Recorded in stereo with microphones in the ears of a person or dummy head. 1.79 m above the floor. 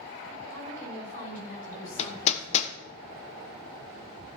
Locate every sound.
0.5 s a woman speaking: 45° left (ahead or behind), 7.5 m
2.0 s hammering: 40° left (ahead or behind), 1.3 m